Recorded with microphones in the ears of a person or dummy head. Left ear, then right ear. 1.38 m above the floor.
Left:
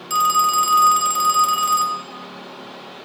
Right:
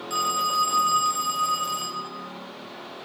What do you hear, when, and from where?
0.1 s a phone ringing: 30° left (ahead or behind), 0.8 m